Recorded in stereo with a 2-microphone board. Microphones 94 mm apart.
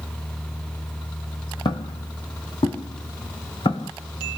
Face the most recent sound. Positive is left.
turn(degrees=80)